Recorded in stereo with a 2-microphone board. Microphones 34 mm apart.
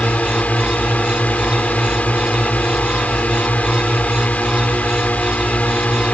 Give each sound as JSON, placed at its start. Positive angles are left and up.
{"t": 0.0, "sound": "a drone", "side_deg": 45}